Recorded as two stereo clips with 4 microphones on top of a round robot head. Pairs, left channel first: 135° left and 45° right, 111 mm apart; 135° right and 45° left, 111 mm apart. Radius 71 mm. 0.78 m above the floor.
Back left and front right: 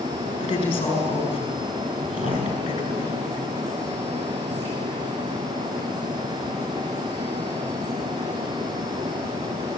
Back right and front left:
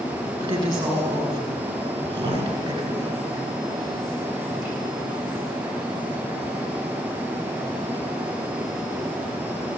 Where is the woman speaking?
90° left, 7 m.